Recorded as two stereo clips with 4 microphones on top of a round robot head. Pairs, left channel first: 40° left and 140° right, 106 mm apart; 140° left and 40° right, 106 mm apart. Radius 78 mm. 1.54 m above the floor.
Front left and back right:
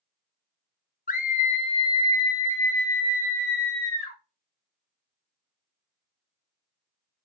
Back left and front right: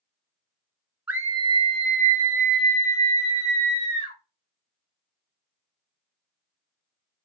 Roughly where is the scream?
Ahead left.